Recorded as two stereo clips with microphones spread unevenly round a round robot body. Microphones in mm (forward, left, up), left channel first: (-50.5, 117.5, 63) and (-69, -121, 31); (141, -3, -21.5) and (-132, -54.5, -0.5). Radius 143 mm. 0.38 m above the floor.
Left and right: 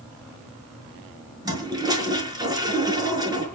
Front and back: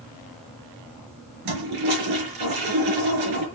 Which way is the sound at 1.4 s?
170° right.